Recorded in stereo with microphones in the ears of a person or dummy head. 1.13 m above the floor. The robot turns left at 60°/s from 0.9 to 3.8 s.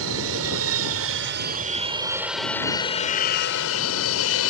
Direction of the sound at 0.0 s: 70° right (ahead or behind).